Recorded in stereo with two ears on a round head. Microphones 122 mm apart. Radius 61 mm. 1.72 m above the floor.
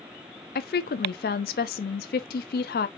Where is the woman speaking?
75° left (ahead or behind), 0.6 m.